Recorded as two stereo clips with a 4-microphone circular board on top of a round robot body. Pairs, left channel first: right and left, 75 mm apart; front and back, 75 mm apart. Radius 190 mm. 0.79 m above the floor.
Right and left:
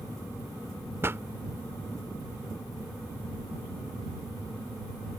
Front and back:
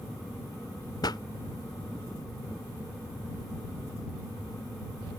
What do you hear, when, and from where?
1.0 s a pop: 30° left